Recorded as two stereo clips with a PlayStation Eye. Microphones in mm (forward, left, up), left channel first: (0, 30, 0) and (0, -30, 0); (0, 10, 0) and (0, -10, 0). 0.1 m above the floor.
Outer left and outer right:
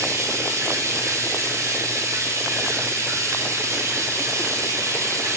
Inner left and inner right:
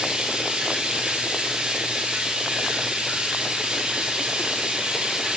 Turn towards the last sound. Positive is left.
turn(degrees=-55)  # may be behind; listen again after turning